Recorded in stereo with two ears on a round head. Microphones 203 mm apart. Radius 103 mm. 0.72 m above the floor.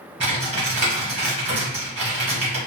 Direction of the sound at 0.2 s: 30° right (ahead or behind).